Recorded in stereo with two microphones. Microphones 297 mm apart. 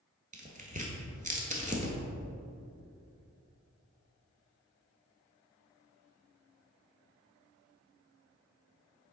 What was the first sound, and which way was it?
Tearing paper, 25° right (ahead or behind).